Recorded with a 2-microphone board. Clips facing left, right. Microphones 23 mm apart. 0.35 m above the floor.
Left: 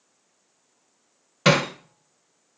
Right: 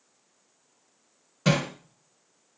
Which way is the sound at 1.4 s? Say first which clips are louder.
Left 6 dB; 45° left (ahead or behind).